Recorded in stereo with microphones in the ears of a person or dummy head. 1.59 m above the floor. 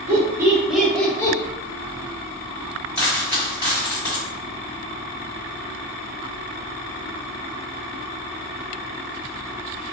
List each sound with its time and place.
0.1 s laughter: 25° right (ahead or behind), 1.0 m; by 1.4 s 25° left (ahead or behind), 0.7 m
3.0 s a dropped coin: 10° left (ahead or behind), 1.8 m